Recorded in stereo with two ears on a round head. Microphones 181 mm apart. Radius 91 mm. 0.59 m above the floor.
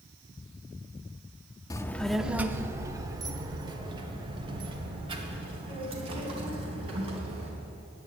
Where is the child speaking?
20° left (ahead or behind), 0.5 m; by 7.5 s 30° right (ahead or behind), 4 m.